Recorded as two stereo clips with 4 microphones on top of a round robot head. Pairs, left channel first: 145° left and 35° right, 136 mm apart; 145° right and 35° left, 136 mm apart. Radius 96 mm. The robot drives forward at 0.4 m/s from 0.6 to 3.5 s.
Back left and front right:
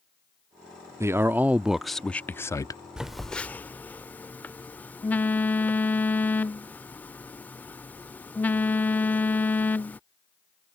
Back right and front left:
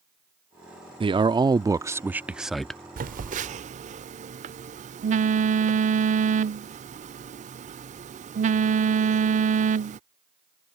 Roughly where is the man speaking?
Ahead left.